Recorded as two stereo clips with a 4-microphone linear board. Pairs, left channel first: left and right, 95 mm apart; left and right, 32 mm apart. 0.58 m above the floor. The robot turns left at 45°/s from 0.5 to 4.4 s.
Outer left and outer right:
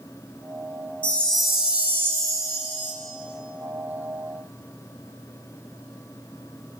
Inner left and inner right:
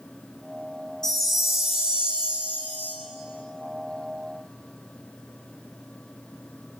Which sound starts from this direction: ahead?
A chime, at 1.0 s.